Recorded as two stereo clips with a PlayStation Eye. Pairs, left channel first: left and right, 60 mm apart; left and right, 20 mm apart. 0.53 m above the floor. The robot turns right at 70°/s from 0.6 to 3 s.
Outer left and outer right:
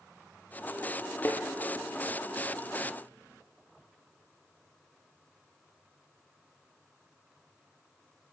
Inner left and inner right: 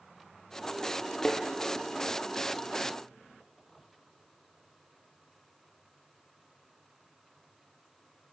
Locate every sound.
1.2 s a thud: 40° left (ahead or behind), 3.5 m; by 1.4 s 50° left (ahead or behind), 3.5 m